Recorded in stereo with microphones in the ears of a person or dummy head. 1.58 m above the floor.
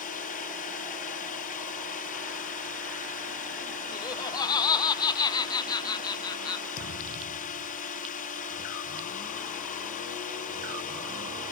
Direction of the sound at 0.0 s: 40° left (ahead or behind).